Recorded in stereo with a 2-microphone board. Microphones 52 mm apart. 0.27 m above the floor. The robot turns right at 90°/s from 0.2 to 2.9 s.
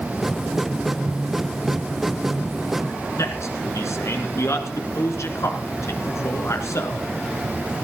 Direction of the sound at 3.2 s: 70° left (ahead or behind).